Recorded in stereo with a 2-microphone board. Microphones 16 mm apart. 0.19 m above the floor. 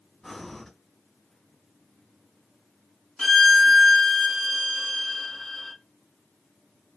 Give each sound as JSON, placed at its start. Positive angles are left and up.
{"t": 0.2, "sound": "breathing", "side_deg": 20, "distance_m": 1.8}
{"t": 3.2, "sound": "a violin", "side_deg": 25, "distance_m": 1.1}